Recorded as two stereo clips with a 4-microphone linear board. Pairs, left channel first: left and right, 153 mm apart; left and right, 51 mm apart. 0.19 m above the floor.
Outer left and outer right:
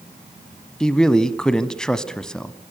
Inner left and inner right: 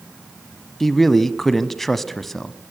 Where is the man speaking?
5° left (ahead or behind), 1.1 m.